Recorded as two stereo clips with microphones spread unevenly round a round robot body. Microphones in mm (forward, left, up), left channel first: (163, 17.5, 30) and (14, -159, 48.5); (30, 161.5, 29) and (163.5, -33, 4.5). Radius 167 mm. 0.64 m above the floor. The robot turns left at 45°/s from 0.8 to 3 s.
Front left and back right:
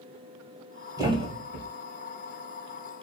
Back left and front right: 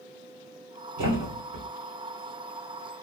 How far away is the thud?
About 1.6 m.